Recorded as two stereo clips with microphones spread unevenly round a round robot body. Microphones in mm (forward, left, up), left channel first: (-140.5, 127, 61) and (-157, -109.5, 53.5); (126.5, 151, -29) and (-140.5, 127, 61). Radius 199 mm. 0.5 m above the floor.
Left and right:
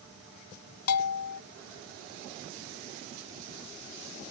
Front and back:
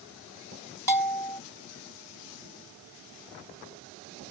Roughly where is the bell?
Left.